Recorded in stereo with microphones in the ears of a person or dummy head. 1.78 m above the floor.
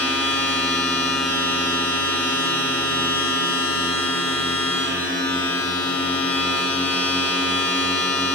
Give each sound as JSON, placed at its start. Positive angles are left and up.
{"t": 0.0, "sound": "a machine running", "side_deg": 10, "distance_m": 8.0}